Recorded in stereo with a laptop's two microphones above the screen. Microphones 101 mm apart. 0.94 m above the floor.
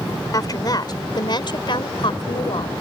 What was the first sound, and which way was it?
A woman speaking, 40° left (ahead or behind).